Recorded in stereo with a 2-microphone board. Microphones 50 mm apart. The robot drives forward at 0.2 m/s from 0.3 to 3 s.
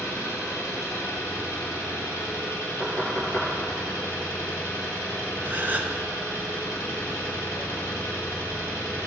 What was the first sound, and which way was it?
An engine running, 60° left (ahead or behind).